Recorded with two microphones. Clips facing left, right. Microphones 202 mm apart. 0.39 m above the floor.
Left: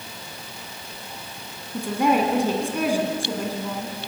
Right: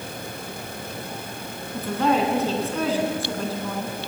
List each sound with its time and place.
1.7 s a woman speaking: 15° left (ahead or behind), 3.5 m